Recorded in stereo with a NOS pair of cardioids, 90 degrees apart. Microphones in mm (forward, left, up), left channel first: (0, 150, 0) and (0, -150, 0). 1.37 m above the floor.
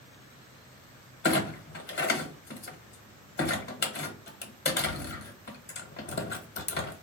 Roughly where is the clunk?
Ahead left.